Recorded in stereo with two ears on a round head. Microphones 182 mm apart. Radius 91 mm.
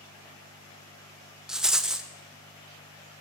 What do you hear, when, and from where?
1.5 s a rattle: 5° right (ahead or behind), 0.5 m